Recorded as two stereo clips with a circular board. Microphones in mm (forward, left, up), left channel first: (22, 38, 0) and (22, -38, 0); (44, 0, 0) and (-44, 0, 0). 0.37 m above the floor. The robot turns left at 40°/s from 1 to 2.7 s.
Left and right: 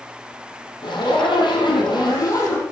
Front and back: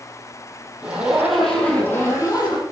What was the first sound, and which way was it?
A zipper, 105° left.